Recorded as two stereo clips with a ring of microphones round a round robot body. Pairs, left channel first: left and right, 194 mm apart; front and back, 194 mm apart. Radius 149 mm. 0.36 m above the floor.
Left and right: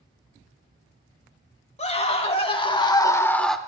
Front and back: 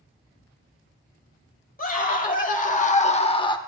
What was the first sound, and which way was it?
A scream, 40° left.